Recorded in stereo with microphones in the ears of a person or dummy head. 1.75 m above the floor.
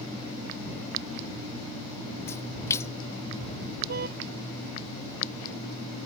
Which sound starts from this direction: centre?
A splash, at 2.3 s.